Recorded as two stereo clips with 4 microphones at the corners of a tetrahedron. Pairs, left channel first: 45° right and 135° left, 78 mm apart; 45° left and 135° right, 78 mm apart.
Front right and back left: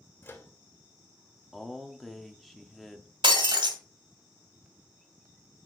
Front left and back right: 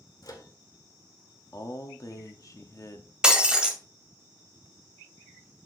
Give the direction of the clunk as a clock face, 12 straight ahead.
I don't hear a clunk.